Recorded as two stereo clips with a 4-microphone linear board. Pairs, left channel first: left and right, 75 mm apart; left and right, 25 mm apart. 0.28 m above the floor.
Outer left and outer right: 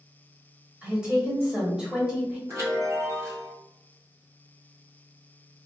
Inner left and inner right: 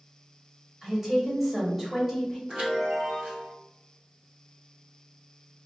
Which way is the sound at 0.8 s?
10° right (ahead or behind).